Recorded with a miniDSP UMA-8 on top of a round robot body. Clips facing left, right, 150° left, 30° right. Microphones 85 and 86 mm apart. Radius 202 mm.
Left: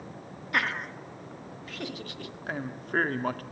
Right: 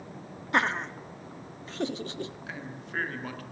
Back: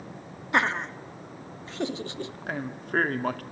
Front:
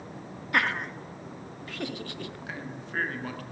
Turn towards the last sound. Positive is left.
turn(degrees=120)